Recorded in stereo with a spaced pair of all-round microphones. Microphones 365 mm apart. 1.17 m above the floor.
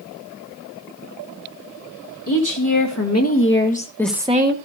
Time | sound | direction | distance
2.3 | a woman speaking | 55° left (ahead or behind) | 3 m